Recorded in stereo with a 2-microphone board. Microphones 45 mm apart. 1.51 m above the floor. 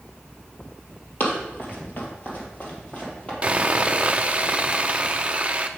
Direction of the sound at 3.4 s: 25° right (ahead or behind).